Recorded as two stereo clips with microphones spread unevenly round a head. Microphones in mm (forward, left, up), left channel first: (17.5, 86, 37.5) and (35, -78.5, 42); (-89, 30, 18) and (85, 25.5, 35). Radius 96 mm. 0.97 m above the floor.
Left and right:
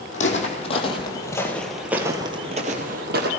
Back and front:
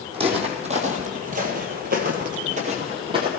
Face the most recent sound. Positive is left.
turn(degrees=-65)